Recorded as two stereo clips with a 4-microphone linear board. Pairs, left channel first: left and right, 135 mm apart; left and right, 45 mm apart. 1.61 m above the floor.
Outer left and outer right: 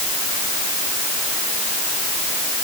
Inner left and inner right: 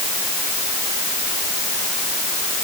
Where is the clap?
I don't hear a clap.